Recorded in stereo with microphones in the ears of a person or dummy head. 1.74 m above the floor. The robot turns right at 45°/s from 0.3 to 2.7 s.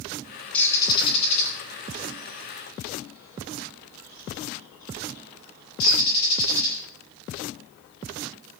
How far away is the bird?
About 9.5 m.